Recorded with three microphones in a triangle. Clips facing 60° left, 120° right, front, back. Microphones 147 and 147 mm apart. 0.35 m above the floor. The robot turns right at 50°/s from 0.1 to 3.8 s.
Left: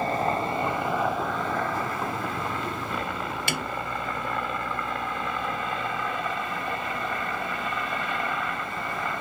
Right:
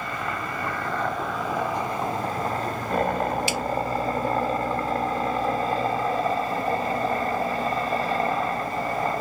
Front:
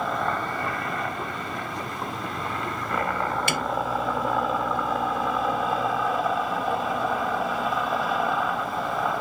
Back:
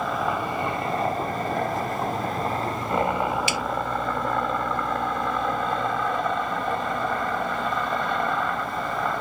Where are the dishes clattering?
No dishes clattering in this recording.